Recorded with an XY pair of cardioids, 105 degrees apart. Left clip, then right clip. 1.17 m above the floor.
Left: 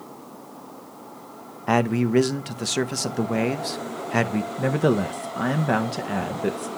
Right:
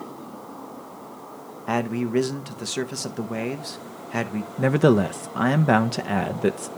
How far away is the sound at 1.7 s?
About 0.8 m.